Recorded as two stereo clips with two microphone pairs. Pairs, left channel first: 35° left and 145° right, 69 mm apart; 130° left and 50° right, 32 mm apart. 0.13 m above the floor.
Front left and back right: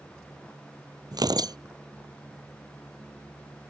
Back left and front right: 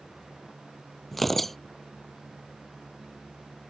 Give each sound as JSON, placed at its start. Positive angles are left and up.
{"t": 1.1, "sound": "tearing paper", "azimuth_deg": -140}